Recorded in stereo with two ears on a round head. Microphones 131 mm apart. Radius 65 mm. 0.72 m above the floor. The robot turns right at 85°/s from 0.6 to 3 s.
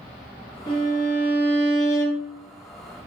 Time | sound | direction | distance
0.7 | a violin | 40° left | 1.2 m